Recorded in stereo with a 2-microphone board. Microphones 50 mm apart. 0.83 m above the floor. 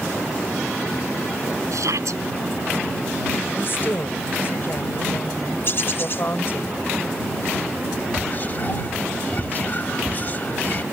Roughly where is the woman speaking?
Left.